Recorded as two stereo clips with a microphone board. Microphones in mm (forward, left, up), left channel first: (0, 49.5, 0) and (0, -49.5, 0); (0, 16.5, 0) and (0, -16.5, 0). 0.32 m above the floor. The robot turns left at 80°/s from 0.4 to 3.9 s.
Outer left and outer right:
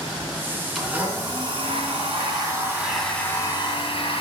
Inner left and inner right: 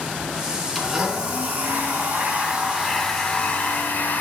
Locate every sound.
0.8 s a blender: straight ahead, 3 m; by 4.2 s 105° left, 3 m